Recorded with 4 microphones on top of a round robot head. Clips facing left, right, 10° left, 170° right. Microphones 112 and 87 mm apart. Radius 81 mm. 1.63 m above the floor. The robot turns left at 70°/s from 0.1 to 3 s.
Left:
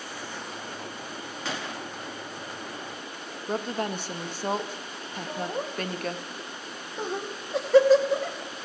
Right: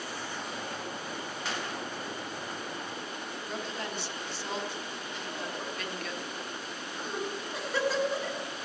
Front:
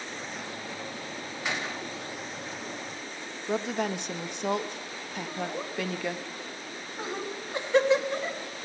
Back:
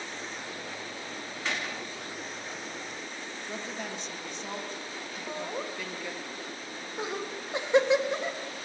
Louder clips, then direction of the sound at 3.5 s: Left 9 dB, front 10 dB; 45° left.